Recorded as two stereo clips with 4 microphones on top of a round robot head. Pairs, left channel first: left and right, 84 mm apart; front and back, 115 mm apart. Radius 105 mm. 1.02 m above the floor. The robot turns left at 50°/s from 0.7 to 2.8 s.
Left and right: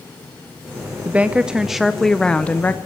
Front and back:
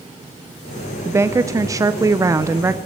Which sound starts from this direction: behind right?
A woman speaking, at 1.1 s.